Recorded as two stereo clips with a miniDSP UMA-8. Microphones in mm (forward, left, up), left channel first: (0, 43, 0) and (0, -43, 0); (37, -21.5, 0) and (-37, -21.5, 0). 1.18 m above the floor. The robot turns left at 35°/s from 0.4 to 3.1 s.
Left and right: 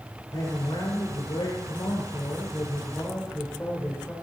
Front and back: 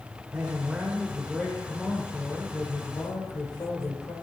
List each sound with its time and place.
0.3 s a man speaking: 115° left, 4 m; by 4.1 s 20° left, 4 m